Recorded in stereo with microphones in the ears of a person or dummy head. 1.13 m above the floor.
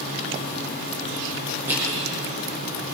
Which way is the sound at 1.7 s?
15° right (ahead or behind).